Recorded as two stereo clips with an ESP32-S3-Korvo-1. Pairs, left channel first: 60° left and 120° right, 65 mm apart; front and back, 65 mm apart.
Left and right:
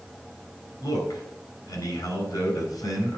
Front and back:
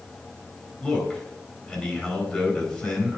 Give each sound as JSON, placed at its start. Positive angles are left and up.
{"t": 0.8, "sound": "a man speaking", "azimuth_deg": 85, "distance_m": 4.0}